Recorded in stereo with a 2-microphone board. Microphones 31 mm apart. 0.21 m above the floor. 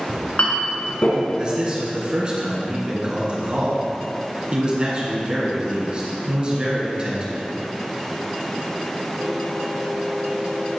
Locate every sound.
0.1 s a clink: 55° left (ahead or behind), 1.7 m
1.4 s a man speaking: 30° right (ahead or behind), 2.5 m